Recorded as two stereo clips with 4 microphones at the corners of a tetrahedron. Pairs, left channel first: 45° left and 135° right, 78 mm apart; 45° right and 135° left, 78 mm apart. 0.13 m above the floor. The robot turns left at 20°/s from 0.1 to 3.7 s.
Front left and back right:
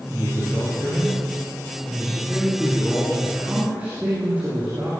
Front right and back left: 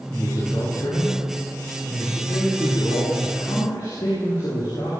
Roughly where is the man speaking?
Ahead.